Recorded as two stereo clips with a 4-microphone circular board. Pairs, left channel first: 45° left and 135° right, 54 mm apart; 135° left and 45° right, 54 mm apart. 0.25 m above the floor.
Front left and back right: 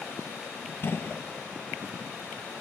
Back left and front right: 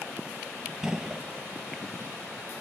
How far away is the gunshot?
About 1.2 m.